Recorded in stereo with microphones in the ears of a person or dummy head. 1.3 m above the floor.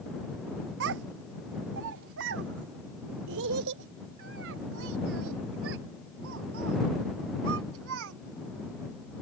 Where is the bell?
I don't hear a bell.